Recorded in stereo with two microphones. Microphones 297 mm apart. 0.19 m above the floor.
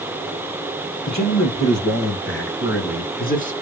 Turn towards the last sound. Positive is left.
turn(degrees=25)  # may be behind; listen again after turning